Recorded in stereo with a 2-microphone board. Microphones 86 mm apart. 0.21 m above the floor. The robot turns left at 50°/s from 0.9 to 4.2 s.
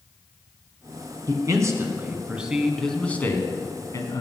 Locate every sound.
1.3 s a man speaking: 110° right, 1.9 m; by 4.2 s 105° left, 1.9 m